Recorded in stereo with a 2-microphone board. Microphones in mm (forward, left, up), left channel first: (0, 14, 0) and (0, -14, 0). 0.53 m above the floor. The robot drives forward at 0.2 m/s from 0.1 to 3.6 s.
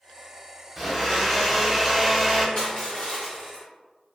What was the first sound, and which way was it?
A blender, 5° left (ahead or behind).